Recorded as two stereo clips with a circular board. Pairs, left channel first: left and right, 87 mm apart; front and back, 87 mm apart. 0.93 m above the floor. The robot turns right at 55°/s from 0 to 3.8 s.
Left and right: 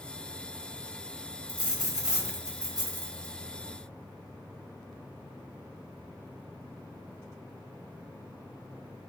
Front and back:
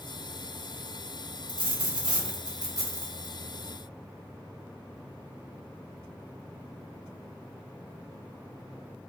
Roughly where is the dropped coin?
Behind left.